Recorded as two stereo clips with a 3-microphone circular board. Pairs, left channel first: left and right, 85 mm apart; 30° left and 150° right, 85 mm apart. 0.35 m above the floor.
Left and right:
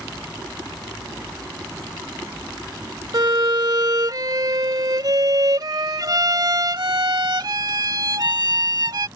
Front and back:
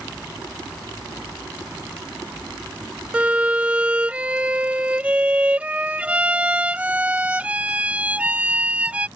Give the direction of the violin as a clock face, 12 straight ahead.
3 o'clock.